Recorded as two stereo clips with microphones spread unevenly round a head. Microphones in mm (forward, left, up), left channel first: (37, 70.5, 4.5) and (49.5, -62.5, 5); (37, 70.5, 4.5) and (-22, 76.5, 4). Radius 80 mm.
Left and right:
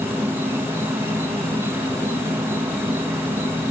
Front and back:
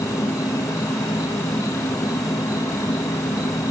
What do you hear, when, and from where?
0.0 s an insect: 15° right, 1.5 m